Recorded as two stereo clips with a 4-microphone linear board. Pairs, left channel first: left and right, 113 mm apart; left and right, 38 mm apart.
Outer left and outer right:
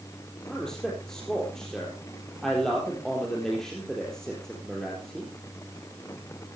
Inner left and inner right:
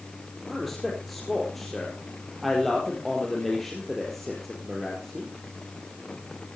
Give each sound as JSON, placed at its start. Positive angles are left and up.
{"t": 0.5, "sound": "a man speaking", "side_deg": 5, "distance_m": 4.0}